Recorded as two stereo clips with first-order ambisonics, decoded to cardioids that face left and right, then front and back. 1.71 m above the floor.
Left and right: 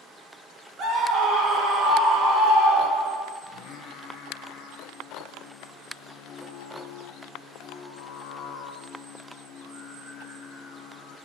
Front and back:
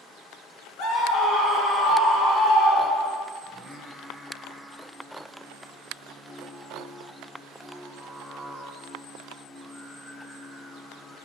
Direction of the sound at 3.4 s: 85° left.